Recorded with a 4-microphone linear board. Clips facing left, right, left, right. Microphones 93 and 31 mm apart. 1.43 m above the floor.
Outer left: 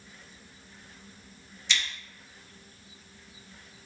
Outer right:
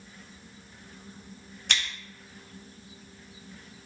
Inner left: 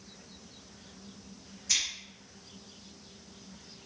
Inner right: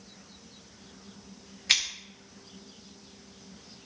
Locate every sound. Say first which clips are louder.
1.7 s scissors: even, inner right 6 dB; 55° right (ahead or behind), 1.9 m